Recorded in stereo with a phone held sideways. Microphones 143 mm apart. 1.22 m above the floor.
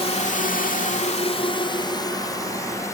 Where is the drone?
45° left (ahead or behind); by 2.9 s 20° left (ahead or behind).